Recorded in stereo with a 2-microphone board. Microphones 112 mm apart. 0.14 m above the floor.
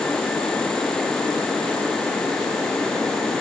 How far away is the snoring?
I don't hear snoring.